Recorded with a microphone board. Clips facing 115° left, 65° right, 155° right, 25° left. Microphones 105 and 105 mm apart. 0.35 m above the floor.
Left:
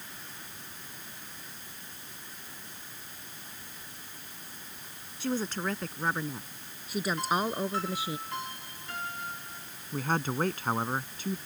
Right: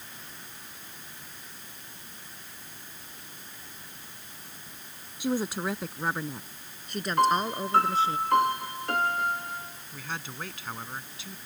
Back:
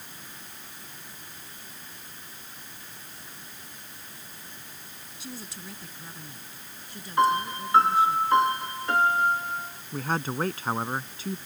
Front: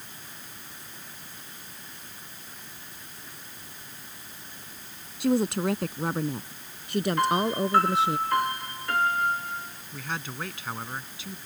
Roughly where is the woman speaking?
Ahead.